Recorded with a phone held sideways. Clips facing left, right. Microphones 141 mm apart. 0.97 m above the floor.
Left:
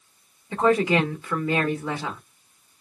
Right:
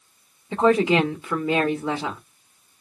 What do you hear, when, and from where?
0.5 s a woman speaking: 15° right (ahead or behind), 1.3 m